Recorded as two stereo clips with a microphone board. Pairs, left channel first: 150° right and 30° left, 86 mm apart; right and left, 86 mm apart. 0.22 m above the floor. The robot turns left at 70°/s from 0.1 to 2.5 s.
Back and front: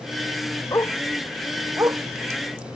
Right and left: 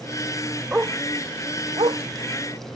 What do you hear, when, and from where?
0.7 s a dog barking: 165° left; by 2.0 s 75° left